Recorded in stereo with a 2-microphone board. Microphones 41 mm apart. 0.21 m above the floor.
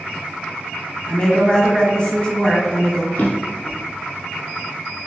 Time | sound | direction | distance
1.1 | a woman speaking | 25° left (ahead or behind) | 1.2 m
3.1 | a drawer | 70° left (ahead or behind) | 1.6 m